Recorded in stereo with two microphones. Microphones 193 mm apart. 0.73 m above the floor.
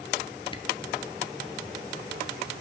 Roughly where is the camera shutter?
Left.